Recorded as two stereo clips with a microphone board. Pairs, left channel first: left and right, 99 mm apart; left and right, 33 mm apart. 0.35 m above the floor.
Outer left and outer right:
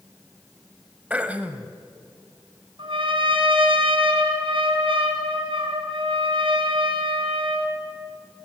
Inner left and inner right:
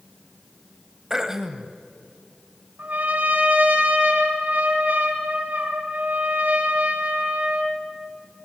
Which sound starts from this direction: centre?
Throat clearing, at 1.1 s.